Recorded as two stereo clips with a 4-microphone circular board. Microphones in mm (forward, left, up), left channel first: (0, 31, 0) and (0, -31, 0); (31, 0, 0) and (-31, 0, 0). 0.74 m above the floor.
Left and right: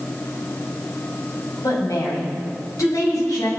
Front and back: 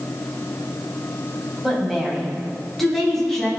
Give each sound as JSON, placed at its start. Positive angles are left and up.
{"t": 1.6, "sound": "a woman speaking", "azimuth_deg": 90, "distance_m": 5.5}